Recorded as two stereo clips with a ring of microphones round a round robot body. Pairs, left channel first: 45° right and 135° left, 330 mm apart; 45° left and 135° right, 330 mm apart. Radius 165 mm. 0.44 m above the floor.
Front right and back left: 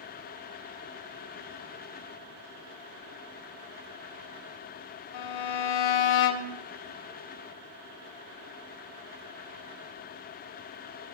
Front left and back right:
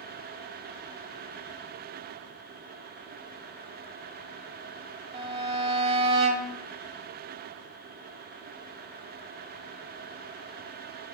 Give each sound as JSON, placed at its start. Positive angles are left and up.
{"t": 5.1, "sound": "a violin", "azimuth_deg": -60, "distance_m": 0.9}